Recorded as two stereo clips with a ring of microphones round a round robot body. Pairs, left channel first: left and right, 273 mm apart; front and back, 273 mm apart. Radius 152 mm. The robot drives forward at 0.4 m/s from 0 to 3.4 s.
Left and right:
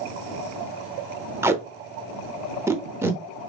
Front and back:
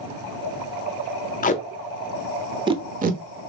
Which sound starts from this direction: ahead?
Tape being pulled, at 1.4 s.